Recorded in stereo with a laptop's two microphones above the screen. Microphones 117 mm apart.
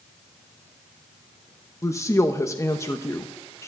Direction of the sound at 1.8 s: 25° left (ahead or behind).